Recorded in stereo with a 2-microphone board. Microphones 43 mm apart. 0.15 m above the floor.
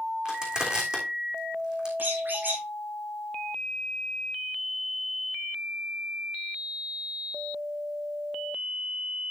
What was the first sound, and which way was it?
Crushing, 20° right (ahead or behind).